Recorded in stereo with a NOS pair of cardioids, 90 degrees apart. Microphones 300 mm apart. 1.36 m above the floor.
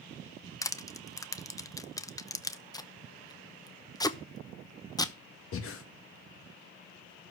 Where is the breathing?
45° left, 1.6 m.